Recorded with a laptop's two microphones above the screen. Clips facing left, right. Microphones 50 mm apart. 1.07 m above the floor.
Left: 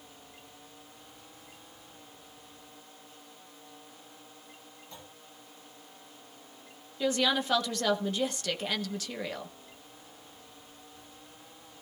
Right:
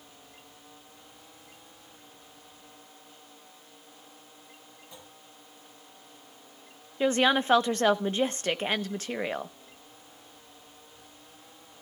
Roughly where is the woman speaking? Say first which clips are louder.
Right 4 dB; right.